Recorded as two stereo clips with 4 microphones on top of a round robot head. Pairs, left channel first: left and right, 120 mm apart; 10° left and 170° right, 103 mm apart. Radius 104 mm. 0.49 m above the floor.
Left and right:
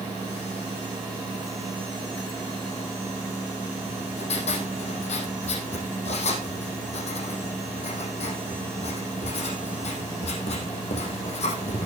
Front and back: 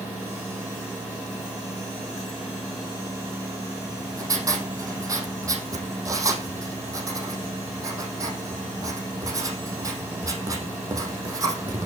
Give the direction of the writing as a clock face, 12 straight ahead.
8 o'clock.